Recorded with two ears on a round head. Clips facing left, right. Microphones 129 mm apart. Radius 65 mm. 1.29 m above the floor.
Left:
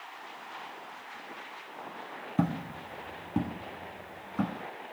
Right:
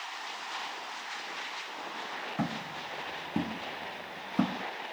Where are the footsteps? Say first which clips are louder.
Left 5 dB; 35° left (ahead or behind), 1.5 m; by 4.6 s 30° right (ahead or behind), 3 m.